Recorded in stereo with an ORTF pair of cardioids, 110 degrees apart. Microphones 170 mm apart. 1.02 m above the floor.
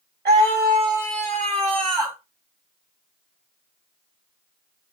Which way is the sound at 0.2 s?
60° right.